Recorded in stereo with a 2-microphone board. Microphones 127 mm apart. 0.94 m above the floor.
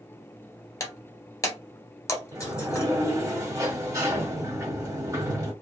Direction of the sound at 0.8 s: 25° left (ahead or behind).